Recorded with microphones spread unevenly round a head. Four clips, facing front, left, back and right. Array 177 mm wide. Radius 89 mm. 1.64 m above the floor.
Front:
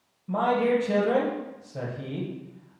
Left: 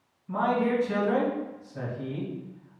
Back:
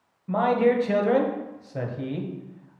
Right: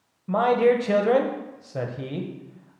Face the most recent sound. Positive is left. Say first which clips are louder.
# right 6 dB, back 2 dB
turn(degrees=-105)